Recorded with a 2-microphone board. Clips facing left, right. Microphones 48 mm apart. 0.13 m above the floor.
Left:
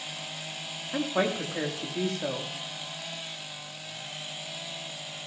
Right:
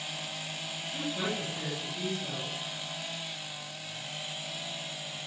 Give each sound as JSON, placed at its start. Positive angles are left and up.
{"t": 0.9, "sound": "a woman speaking", "side_deg": 70, "distance_m": 6.0}